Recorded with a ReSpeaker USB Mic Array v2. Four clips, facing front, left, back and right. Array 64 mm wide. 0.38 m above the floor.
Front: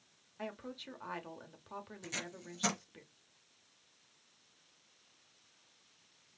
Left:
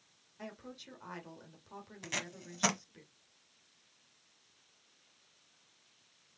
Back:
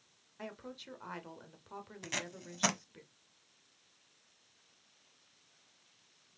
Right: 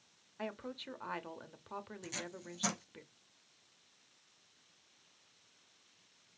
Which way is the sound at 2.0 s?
135° left.